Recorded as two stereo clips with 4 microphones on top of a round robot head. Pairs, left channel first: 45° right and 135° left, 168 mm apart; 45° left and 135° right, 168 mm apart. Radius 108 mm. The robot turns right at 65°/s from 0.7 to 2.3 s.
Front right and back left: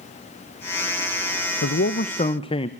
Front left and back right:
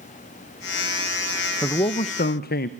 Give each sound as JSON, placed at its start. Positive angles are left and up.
{"t": 1.6, "sound": "a man speaking", "azimuth_deg": -30, "distance_m": 0.7}